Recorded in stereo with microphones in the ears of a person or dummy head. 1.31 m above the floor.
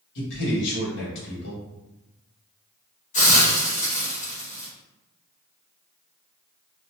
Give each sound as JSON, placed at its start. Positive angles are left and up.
{"t": 0.1, "sound": "a man speaking", "side_deg": 65, "distance_m": 1.3}
{"t": 3.1, "sound": "a hiss", "side_deg": 35, "distance_m": 1.2}